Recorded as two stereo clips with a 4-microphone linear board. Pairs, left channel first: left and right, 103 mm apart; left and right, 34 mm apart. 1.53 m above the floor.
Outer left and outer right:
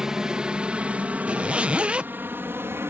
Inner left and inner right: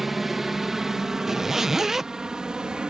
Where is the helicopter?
5° right (ahead or behind); by 2.9 s 20° right (ahead or behind).